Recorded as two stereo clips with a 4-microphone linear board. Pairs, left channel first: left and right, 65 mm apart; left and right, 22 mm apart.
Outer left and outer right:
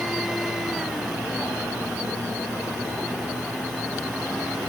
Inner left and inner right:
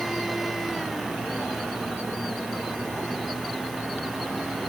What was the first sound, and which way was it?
Only background noise.